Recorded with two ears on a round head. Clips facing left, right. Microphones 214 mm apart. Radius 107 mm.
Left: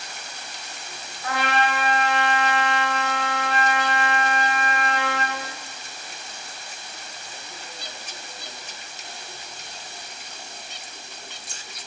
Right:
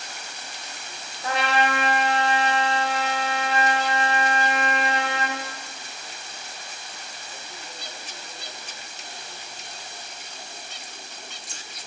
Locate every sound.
1.2 s a trumpet: 25° right (ahead or behind), 1.7 m